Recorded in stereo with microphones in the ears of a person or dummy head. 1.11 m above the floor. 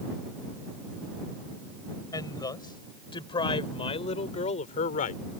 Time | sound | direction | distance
2.1 | a woman speaking | 20° left (ahead or behind) | ?